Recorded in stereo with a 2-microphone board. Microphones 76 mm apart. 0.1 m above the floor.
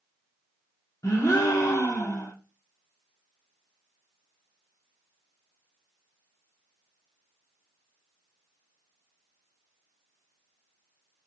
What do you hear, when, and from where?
1.0 s a gasp: 45° left (ahead or behind), 0.7 m